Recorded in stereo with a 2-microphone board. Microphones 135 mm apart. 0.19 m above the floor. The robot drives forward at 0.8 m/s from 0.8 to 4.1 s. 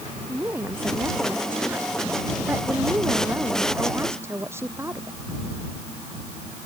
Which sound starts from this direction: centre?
A woman speaking, at 0.3 s.